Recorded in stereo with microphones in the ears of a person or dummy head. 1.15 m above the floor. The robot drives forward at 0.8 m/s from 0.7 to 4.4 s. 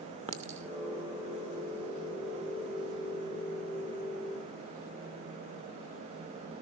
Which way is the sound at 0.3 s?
30° right (ahead or behind).